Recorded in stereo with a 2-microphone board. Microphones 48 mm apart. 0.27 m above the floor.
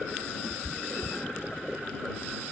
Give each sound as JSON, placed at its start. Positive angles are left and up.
{"t": 0.4, "sound": "a cat meowing", "side_deg": 45}